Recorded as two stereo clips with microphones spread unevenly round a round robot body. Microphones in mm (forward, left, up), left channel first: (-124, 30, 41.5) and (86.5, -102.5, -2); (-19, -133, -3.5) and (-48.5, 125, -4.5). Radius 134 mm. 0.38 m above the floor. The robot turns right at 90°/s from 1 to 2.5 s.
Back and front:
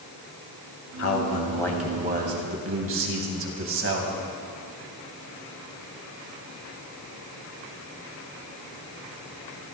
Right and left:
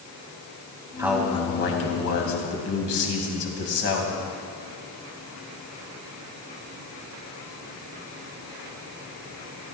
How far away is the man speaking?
About 2.5 m.